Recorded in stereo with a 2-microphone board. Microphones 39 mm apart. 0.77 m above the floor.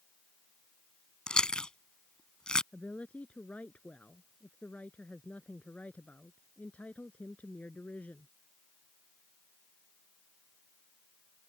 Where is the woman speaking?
35° left (ahead or behind).